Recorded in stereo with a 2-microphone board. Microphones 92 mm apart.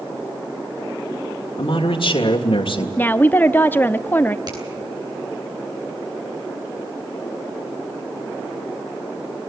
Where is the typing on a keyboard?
No typing on a keyboard in this recording.